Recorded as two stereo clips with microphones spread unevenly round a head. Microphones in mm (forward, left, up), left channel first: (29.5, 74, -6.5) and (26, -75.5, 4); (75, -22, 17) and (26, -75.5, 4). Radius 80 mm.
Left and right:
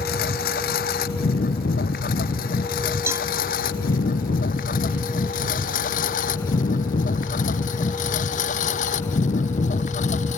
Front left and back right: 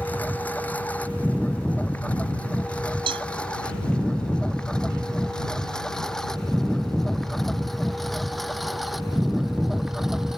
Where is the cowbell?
165° right.